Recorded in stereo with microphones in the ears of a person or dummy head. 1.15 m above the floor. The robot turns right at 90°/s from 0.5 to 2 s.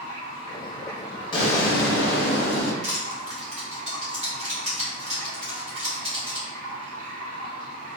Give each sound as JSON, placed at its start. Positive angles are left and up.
{"t": 0.0, "sound": "running water", "azimuth_deg": 115, "distance_m": 1.4}
{"t": 1.3, "sound": "an explosion", "azimuth_deg": 35, "distance_m": 0.8}
{"t": 2.8, "sound": "crushing", "side_deg": -45, "distance_m": 1.3}